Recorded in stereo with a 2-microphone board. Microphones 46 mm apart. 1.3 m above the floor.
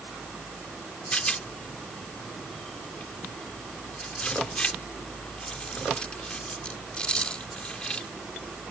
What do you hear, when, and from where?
1.1 s a rattle: 20° left (ahead or behind)